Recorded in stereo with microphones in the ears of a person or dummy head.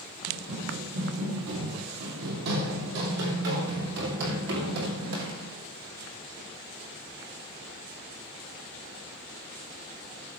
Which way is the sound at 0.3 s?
50° right (ahead or behind).